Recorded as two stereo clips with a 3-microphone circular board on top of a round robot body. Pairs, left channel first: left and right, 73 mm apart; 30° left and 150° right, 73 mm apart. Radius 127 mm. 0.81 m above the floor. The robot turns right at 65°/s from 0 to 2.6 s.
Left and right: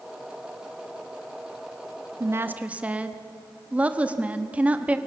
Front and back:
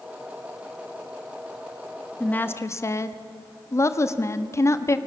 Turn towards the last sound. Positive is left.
turn(degrees=-20)